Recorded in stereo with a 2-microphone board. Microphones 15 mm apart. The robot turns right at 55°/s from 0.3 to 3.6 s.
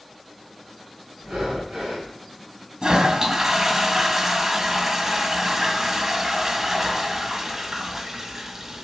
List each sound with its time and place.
1.2 s breathing: 115° right, 4.5 m; by 2.1 s 65° right, 4.5 m
2.8 s a toilet flushing: 65° right, 1.9 m; by 8.8 s 25° right, 1.9 m